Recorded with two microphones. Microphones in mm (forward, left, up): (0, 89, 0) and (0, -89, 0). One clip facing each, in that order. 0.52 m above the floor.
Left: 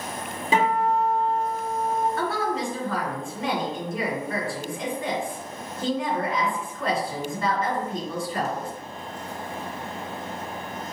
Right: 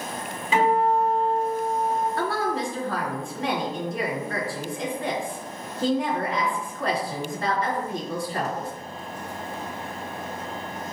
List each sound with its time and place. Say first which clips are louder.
0.5 s a guitar: right 2 dB; 40° left (ahead or behind), 1.6 m
2.2 s a woman speaking: even; 40° right (ahead or behind), 2.0 m